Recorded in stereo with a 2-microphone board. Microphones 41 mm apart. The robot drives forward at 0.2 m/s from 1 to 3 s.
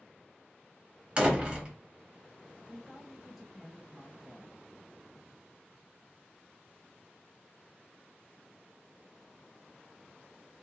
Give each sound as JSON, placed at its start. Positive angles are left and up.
{"t": 1.2, "sound": "a door slam", "side_deg": -25, "distance_m": 0.7}
{"t": 2.7, "sound": "a woman speaking", "side_deg": -10, "distance_m": 1.2}